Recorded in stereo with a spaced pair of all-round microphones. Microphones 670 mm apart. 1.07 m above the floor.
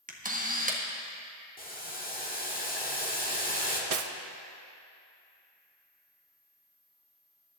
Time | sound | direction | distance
0.1 | a camera shutter | 10° right (ahead or behind) | 1.4 m
1.6 | boiling | 15° left (ahead or behind) | 1.6 m
3.9 | cutlery clinking | 60° right (ahead or behind) | 0.7 m